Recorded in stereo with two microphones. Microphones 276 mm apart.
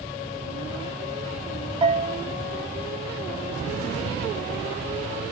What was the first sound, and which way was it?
A bell, 20° right (ahead or behind).